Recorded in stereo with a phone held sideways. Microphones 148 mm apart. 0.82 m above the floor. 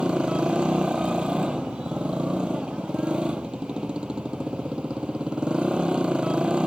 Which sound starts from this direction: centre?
A motorcycle, at 0.0 s.